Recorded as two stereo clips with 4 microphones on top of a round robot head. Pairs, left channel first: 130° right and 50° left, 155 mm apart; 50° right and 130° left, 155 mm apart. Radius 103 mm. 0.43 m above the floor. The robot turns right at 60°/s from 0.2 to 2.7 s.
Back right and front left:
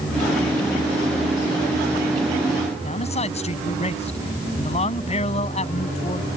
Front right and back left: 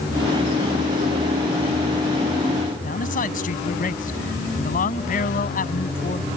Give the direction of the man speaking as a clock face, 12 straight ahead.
3 o'clock.